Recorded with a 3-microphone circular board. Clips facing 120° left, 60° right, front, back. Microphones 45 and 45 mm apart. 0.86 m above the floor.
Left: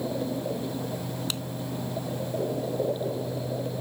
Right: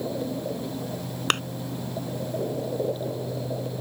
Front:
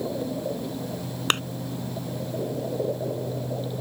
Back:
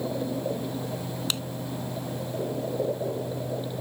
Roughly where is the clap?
Ahead right.